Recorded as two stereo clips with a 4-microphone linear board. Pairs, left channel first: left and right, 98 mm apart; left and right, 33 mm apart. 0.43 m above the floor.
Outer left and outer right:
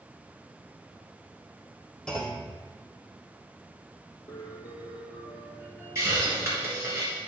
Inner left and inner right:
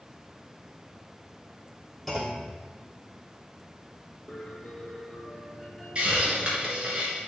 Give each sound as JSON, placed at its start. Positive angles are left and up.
{"t": 2.1, "sound": "a clunk", "side_deg": 10, "distance_m": 2.5}
{"t": 4.3, "sound": "a piano", "side_deg": 40, "distance_m": 4.5}
{"t": 6.0, "sound": "a hiss", "side_deg": -30, "distance_m": 4.0}